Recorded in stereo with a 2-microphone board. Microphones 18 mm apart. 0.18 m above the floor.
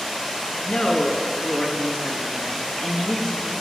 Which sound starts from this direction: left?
A woman speaking, at 0.6 s.